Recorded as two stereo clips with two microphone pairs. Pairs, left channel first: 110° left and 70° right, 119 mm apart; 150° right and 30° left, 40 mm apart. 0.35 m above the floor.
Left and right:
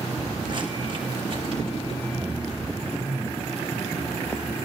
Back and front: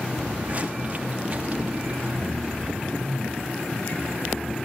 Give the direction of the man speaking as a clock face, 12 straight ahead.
5 o'clock.